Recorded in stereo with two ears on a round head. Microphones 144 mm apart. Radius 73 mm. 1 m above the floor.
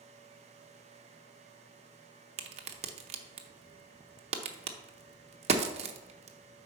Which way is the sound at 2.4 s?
40° right (ahead or behind).